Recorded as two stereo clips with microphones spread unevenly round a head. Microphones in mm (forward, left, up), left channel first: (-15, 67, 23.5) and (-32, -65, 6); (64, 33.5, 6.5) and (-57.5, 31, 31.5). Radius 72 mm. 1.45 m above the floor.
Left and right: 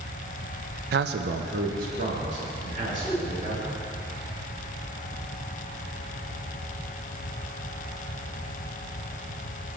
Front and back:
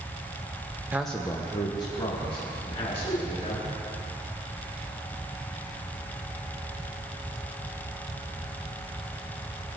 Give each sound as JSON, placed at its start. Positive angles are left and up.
{"t": 0.9, "sound": "a man speaking", "azimuth_deg": -105, "distance_m": 0.5}
{"t": 3.0, "sound": "a whoosh", "azimuth_deg": 10, "distance_m": 1.2}